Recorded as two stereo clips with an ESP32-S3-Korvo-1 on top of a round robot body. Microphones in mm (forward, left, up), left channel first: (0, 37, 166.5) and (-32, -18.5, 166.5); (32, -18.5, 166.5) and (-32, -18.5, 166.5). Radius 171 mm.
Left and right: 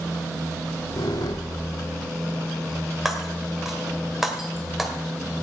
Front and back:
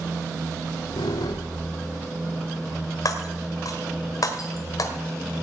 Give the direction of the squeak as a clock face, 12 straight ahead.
11 o'clock.